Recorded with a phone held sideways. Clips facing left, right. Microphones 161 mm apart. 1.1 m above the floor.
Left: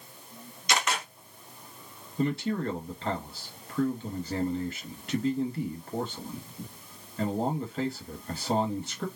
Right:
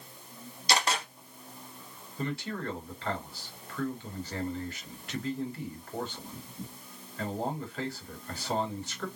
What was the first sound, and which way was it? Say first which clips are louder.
A camera shutter: even; 35° right (ahead or behind).